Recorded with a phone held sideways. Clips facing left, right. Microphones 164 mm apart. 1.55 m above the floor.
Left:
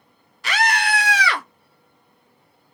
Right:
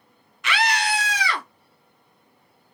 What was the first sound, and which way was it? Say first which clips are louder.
A scream: left 2 dB; 35° left (ahead or behind).